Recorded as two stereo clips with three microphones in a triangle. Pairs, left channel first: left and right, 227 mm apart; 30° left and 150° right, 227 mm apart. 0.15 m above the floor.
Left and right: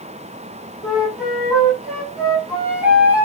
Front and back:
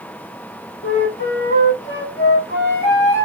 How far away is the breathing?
I don't hear breathing.